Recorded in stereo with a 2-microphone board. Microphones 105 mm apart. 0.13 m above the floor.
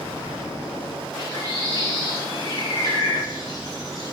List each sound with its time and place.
1.2 s a bird: 40° left (ahead or behind), 3.5 m